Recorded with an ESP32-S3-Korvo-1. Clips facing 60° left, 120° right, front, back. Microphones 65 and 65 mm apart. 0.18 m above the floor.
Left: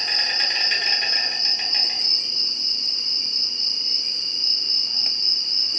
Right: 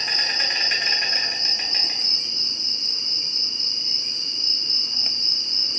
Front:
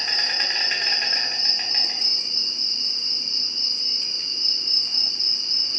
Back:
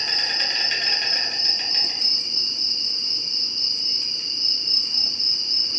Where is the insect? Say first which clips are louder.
Even, even; 45° right, 1.3 m.